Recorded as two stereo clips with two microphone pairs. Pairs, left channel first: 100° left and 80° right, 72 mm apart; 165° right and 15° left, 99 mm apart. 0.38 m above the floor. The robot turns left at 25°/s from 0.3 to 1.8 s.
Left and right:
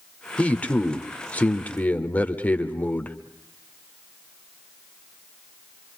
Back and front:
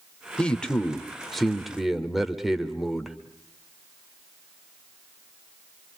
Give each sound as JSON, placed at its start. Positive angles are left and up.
{"t": 0.4, "sound": "a man speaking", "azimuth_deg": 135, "distance_m": 1.3}